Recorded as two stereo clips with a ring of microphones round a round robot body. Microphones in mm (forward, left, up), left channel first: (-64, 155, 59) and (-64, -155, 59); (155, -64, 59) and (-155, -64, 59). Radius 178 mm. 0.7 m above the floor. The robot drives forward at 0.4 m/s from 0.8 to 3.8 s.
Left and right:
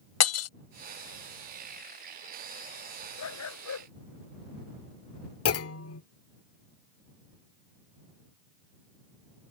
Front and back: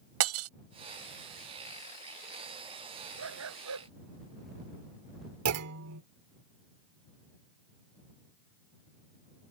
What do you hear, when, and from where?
0.2 s breaking glass: 130° left
3.2 s a dog barking: 130° left
5.5 s a clunk: 135° left